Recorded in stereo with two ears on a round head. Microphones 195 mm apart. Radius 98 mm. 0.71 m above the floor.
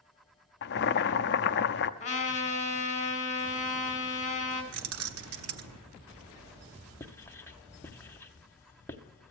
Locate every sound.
0.6 s boiling: 50° left (ahead or behind), 0.5 m
2.0 s a trumpet: 35° left (ahead or behind), 2.5 m
4.7 s keys jangling: 70° right (ahead or behind), 0.8 m
7.0 s writing: 10° left (ahead or behind), 0.7 m